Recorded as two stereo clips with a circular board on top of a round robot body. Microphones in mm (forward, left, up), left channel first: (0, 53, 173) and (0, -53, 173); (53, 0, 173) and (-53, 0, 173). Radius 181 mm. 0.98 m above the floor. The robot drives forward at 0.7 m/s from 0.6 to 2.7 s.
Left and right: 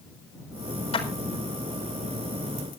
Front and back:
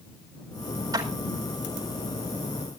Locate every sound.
0.9 s a clap: 120° left, 4.5 m; by 1.1 s 125° left, 4.5 m